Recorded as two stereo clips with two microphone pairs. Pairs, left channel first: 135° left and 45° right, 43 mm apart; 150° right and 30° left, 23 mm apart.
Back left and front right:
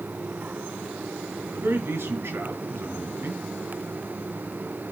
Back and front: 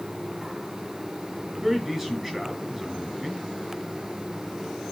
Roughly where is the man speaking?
Ahead right.